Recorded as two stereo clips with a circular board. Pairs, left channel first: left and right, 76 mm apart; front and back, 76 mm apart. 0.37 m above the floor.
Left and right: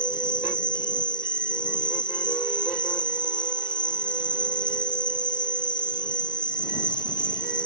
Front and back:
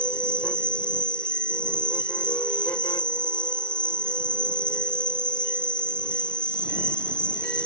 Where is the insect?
80° left.